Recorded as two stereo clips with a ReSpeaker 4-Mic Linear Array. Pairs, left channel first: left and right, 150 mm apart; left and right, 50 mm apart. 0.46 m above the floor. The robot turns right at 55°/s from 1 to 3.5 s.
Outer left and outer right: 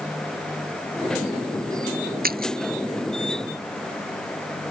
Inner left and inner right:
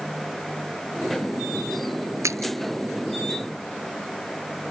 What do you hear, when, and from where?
2.2 s a splash: 85° right; by 2.5 s 75° right (ahead or behind)